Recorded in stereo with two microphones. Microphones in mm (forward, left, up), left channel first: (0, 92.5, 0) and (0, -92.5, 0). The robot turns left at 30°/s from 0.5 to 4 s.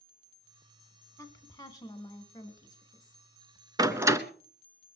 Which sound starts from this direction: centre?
A woman speaking, at 1.2 s.